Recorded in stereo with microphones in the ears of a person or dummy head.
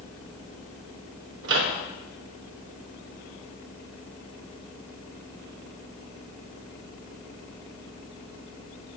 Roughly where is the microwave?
Right.